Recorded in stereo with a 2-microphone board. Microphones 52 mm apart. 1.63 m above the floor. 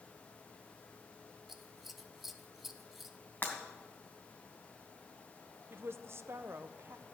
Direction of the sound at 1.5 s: 5° right (ahead or behind).